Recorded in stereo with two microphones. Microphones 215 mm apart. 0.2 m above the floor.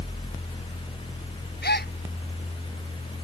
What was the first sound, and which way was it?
A gasp, 50° left (ahead or behind).